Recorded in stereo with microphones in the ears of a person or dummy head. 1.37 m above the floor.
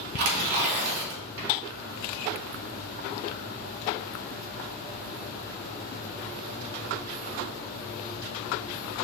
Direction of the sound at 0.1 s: 65° right (ahead or behind).